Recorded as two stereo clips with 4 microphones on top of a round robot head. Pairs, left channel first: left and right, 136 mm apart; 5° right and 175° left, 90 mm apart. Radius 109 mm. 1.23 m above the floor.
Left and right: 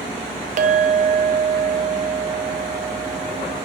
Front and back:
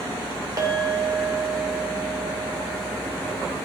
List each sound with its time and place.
0.6 s a clink: 120° right, 1.0 m